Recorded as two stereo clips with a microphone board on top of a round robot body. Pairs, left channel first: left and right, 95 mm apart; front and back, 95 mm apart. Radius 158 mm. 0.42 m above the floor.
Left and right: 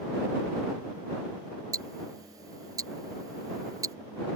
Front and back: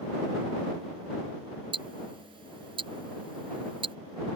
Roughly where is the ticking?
Behind right.